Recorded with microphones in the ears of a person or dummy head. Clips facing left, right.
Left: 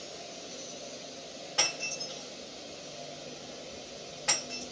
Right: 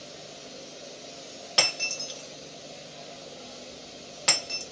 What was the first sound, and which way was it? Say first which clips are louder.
Breaking glass: right 5 dB; 75° right (ahead or behind).